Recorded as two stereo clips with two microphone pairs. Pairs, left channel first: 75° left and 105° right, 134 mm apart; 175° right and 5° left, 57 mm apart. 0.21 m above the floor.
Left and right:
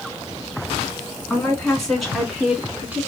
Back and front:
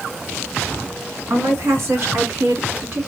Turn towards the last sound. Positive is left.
turn(degrees=-35)